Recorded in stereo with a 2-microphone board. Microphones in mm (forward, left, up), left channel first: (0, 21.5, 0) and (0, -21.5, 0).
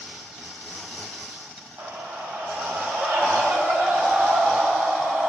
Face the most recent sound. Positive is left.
turn(degrees=-55)  # may be behind; listen again after turning